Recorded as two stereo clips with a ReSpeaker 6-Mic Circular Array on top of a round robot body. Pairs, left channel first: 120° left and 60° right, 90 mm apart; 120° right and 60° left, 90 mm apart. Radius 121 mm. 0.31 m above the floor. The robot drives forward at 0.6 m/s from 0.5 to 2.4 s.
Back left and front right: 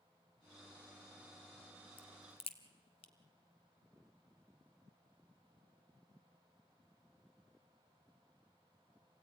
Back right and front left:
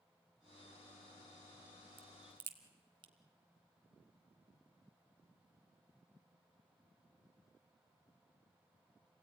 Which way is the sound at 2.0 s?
85° left.